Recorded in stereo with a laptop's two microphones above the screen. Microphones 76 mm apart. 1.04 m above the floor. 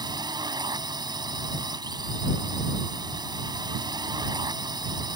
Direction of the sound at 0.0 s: 65° right (ahead or behind).